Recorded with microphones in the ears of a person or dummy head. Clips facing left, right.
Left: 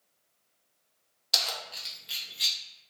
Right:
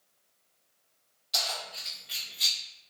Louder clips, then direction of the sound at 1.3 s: Right 1 dB; 80° left.